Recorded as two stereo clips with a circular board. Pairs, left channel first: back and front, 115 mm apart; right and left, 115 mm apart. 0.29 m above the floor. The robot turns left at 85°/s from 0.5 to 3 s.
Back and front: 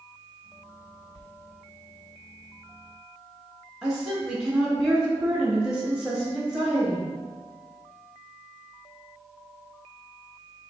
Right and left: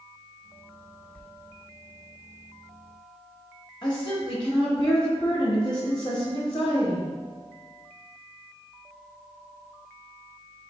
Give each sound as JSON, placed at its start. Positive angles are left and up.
{"t": 1.1, "sound": "a sliding door", "azimuth_deg": -15, "distance_m": 0.5}
{"t": 3.8, "sound": "a woman speaking", "azimuth_deg": -80, "distance_m": 1.2}